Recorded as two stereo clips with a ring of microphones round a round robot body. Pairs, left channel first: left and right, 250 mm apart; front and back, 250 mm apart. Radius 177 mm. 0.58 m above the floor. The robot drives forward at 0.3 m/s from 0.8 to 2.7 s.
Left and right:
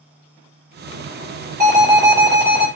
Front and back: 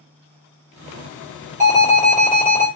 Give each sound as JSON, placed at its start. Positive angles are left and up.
{"t": 1.6, "sound": "an alarm", "azimuth_deg": -170, "distance_m": 1.9}